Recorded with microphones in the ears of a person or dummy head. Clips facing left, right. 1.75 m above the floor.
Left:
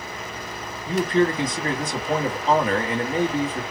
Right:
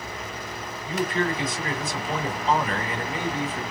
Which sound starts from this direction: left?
A man speaking, at 0.9 s.